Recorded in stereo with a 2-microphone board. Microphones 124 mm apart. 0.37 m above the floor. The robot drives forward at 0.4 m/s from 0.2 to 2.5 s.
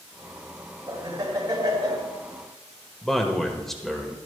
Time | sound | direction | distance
0.9 | laughter | 30° right (ahead or behind) | 3 m
3.0 | a man speaking | 5° left (ahead or behind) | 1.1 m